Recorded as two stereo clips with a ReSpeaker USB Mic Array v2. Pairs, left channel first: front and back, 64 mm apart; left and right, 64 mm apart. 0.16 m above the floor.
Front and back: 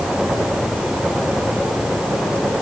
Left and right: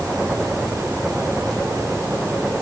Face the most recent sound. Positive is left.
No sound to turn to.